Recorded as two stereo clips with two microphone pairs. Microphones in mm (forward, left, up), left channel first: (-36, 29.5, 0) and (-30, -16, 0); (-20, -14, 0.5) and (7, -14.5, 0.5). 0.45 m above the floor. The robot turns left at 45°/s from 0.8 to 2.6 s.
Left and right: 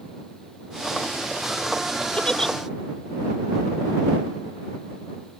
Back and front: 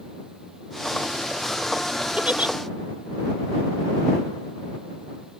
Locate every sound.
2.2 s a giggle: 30° left; by 2.5 s 15° left